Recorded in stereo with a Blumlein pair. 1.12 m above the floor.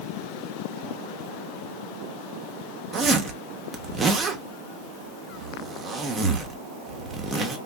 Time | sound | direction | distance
2.9 | a zipper | 20° right | 0.8 m